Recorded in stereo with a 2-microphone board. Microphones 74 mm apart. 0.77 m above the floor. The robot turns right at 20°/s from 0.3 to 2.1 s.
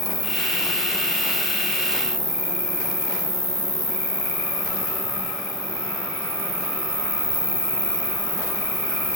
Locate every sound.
0.0 s an insect: 115° left, 1.9 m; by 9.2 s 150° left, 1.9 m